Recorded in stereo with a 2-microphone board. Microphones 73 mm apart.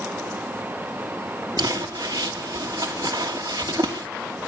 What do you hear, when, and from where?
1.6 s crumpling: 65° right (ahead or behind), 2.5 m